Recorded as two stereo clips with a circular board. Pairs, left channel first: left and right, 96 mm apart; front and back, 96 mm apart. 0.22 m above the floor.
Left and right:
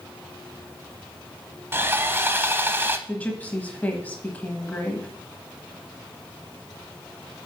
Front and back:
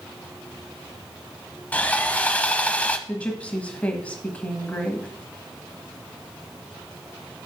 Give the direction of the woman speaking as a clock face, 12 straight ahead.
10 o'clock.